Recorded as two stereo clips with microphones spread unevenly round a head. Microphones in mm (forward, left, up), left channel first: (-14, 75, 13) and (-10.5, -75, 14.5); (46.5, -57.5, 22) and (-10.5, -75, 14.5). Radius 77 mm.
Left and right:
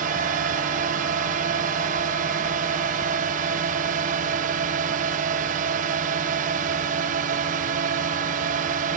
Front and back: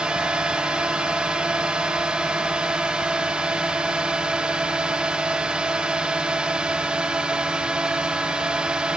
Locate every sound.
0.0 s a drone: 95° right